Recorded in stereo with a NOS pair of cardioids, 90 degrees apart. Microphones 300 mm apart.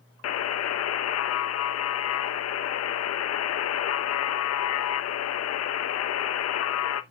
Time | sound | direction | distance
0.2 | a buzzer | 55° left | 0.9 m